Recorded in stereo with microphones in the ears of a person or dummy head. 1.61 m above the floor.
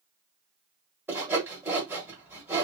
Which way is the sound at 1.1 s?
10° right (ahead or behind).